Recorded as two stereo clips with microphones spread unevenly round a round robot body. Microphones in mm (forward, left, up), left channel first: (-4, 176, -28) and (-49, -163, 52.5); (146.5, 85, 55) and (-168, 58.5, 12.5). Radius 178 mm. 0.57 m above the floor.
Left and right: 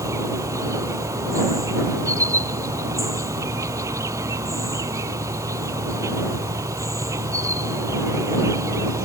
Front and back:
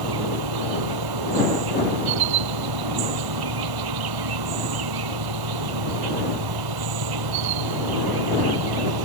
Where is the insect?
Straight behind.